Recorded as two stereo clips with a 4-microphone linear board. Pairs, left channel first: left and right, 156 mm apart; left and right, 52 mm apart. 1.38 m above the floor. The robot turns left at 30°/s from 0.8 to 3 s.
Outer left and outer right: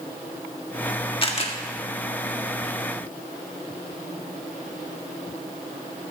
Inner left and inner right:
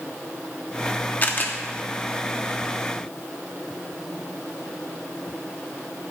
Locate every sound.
1.2 s a camera shutter: 35° left (ahead or behind), 1.5 m; by 1.5 s 45° left (ahead or behind), 1.5 m